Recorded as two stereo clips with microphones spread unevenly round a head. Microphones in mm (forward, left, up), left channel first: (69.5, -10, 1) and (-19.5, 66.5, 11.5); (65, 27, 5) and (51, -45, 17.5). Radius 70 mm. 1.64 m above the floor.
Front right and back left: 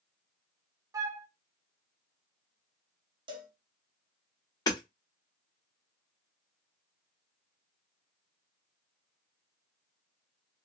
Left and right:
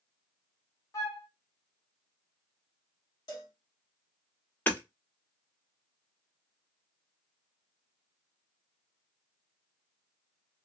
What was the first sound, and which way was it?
A flute, 120° left.